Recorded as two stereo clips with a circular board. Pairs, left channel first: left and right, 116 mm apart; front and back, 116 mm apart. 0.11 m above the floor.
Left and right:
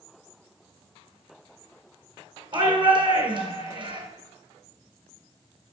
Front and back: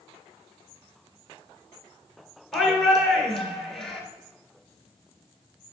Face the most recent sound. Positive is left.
turn(degrees=-85)